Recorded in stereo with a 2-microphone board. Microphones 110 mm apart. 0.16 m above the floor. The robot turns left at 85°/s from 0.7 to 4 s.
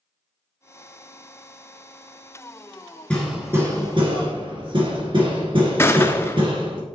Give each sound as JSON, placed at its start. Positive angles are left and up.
{"t": 3.1, "sound": "hammering", "side_deg": 10, "distance_m": 2.0}
{"t": 5.8, "sound": "a gunshot", "side_deg": 20, "distance_m": 0.6}